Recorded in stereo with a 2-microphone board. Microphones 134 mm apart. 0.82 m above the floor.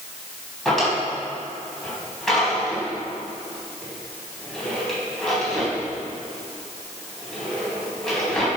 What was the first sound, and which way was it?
A drawer, centre (ahead or behind).